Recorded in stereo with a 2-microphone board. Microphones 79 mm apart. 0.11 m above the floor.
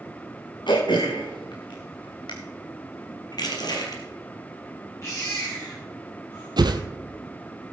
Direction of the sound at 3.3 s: 60° left (ahead or behind).